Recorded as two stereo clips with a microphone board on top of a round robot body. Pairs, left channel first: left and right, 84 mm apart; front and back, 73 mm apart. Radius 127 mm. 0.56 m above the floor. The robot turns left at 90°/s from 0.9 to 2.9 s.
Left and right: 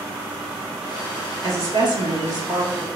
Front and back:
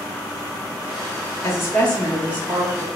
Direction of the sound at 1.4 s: 35° right.